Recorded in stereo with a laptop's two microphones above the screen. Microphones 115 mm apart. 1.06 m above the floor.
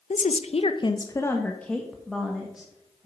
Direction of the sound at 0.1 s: 80° left.